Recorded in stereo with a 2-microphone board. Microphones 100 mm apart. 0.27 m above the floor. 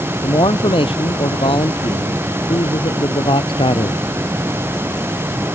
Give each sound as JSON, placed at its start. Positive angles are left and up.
{"t": 0.2, "sound": "a man speaking", "side_deg": 60}